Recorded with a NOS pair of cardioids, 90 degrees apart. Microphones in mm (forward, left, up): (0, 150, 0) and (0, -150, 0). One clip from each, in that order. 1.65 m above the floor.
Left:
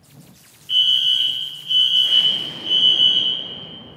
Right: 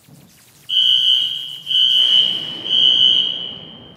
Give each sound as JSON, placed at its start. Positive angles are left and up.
{"t": 0.7, "sound": "a fire alarm", "azimuth_deg": -15, "distance_m": 1.3}